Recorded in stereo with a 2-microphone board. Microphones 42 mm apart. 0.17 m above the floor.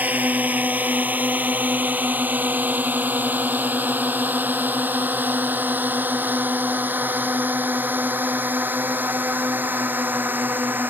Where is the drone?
40° right (ahead or behind); by 10.9 s 50° right (ahead or behind).